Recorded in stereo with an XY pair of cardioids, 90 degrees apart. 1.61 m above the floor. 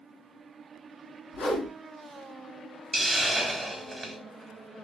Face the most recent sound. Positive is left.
turn(degrees=-25)